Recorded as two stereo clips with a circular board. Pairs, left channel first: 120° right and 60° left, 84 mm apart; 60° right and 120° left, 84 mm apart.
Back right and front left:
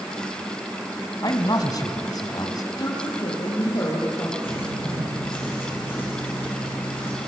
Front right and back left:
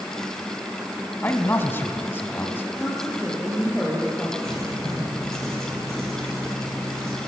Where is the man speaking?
110° right, 1.8 m.